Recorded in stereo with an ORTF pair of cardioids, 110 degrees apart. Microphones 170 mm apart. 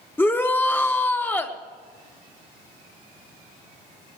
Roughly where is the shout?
Ahead.